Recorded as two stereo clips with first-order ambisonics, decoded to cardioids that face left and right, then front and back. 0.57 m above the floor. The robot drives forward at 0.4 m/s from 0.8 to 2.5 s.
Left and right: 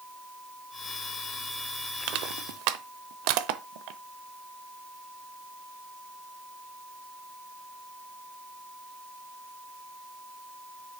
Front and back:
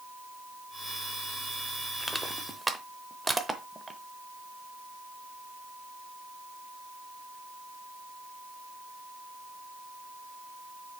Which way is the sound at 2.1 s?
85° right.